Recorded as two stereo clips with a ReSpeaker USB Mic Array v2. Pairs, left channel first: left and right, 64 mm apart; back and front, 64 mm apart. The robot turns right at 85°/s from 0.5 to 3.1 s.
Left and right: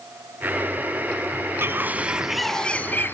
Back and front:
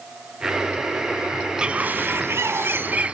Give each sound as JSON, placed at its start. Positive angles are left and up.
{"t": 1.6, "sound": "a bird", "azimuth_deg": -65, "distance_m": 0.7}